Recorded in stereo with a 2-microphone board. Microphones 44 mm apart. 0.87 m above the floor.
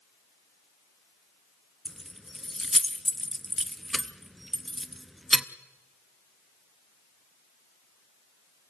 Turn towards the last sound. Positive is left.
turn(degrees=0)  # may be behind; listen again after turning